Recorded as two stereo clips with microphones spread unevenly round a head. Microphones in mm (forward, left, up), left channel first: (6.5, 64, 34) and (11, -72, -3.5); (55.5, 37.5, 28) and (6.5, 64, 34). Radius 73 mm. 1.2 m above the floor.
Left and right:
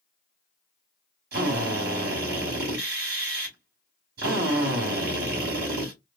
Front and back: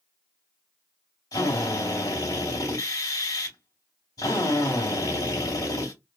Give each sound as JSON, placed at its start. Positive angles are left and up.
{"t": 1.3, "sound": "a drill", "azimuth_deg": -70, "distance_m": 2.5}